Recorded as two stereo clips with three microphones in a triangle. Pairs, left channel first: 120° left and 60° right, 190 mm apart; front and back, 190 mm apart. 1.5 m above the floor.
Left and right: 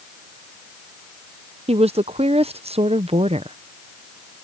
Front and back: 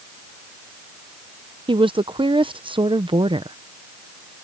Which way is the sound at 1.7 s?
120° right.